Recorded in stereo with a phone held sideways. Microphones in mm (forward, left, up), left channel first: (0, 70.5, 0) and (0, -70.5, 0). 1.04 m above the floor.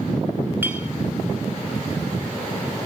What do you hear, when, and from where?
0.6 s a clink: 15° right (ahead or behind), 1.8 m